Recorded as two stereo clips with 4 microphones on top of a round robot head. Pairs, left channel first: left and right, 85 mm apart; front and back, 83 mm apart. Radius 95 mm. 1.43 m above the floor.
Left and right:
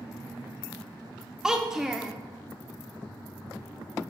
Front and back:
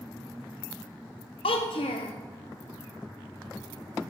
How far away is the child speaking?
About 0.5 m.